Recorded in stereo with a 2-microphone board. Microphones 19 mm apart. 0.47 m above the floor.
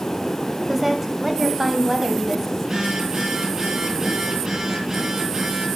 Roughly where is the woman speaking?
Centre.